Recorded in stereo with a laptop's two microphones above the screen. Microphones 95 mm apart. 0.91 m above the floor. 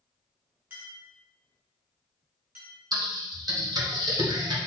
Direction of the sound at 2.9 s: 45° right (ahead or behind).